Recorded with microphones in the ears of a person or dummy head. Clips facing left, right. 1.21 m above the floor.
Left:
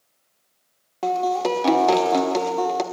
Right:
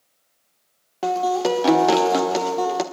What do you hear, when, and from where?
1.0 s a guitar: 5° right (ahead or behind), 1.4 m